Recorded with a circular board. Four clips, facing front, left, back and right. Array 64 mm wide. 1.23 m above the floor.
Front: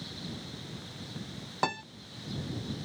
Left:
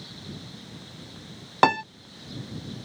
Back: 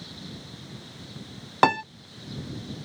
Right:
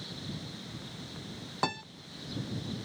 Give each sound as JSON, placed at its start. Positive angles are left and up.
{"t": 1.6, "sound": "a piano", "azimuth_deg": 130}